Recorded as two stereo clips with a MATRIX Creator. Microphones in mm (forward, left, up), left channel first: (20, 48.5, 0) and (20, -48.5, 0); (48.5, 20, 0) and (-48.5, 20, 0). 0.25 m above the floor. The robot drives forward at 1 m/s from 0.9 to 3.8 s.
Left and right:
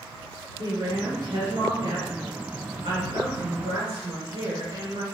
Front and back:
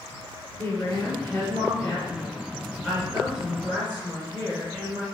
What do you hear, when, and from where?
0.6 s a woman speaking: 55° right, 4 m; by 5.0 s 105° right, 3.5 m